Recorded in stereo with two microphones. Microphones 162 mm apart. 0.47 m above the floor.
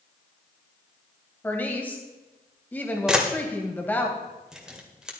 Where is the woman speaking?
10° left (ahead or behind), 2.5 m.